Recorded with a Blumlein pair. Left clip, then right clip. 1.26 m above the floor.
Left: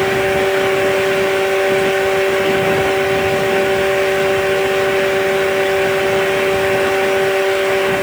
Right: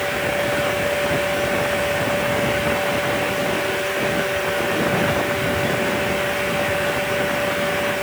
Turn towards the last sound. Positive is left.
turn(degrees=20)